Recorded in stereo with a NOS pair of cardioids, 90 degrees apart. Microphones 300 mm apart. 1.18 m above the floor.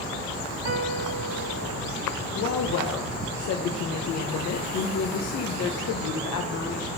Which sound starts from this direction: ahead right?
A piano, at 0.7 s.